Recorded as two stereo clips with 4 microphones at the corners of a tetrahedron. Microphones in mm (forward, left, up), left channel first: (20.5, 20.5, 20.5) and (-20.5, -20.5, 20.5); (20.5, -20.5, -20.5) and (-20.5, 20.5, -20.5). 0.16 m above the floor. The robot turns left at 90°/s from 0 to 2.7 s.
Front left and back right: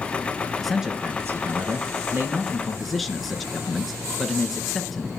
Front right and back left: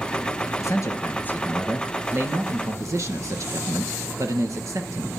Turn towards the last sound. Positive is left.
turn(degrees=135)